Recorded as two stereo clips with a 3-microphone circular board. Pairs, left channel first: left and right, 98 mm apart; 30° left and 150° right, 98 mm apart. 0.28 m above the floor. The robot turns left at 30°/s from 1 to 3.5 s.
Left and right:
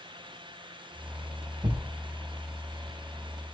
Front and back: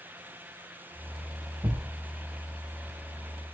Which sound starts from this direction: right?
A thud, at 1.6 s.